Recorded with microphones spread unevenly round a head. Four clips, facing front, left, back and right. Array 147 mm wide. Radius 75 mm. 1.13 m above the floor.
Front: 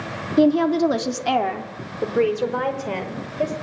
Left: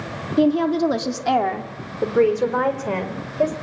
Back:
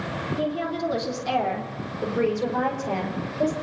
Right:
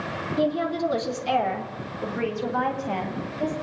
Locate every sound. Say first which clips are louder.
0.4 s a woman speaking: left 7 dB, front 12 dB; 30° left, 2.5 m; by 3.5 s 75° left, 6.5 m